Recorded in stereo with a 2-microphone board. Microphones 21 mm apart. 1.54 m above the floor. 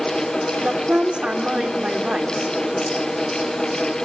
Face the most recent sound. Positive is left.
turn(degrees=-60)  # may be behind; listen again after turning